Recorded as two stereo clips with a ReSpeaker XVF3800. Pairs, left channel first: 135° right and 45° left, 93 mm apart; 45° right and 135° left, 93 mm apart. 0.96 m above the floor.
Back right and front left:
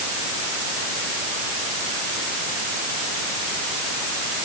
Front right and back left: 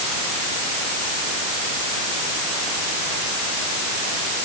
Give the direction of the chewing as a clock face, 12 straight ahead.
No chewing in this recording.